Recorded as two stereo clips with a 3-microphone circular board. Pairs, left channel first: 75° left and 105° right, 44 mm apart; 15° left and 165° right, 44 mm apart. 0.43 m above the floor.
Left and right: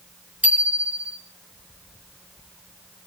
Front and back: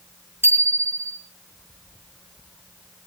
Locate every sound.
0.4 s a bicycle bell: 160° right, 4 m